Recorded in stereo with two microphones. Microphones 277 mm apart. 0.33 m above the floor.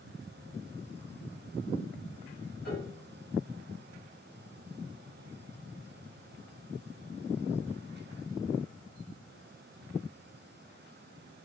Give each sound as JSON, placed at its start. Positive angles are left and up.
{"t": 2.6, "sound": "a piano", "side_deg": 35, "distance_m": 2.0}